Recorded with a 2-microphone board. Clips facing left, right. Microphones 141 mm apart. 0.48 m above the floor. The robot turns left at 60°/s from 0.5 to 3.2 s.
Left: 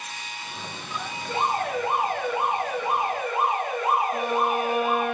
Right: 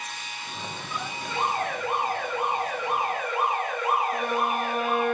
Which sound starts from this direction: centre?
A violin, at 4.1 s.